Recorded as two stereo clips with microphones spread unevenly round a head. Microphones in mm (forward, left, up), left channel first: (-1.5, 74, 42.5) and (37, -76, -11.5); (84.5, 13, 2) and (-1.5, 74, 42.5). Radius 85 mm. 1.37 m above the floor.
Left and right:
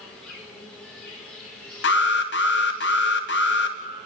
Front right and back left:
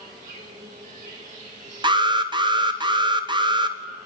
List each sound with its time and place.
0.0 s an insect: 170° right, 4.5 m
1.8 s an alarm: 90° left, 2 m